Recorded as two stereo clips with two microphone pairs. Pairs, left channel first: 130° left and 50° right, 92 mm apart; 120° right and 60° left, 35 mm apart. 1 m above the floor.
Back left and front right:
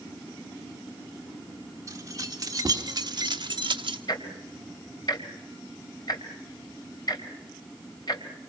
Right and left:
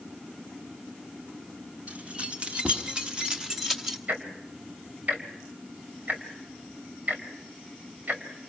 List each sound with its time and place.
1.9 s keys jangling: 5° left, 1.9 m; by 4.0 s 25° right, 1.4 m
4.1 s ticking: 90° left, 2.5 m